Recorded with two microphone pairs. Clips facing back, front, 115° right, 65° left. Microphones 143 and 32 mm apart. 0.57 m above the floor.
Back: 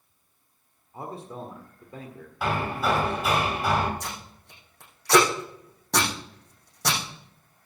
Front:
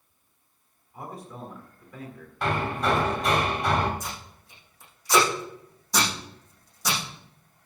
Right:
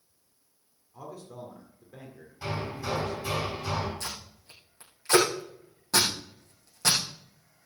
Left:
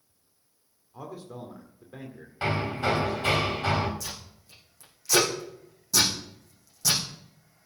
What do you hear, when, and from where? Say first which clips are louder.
0.9 s a man speaking: back 3 dB, left 2 dB; 130° left, 1.9 m
2.4 s hammering: even, left 7 dB; 95° left, 2.5 m
4.0 s tape being pulled: back 1 dB, right 1 dB; 160° right, 7 m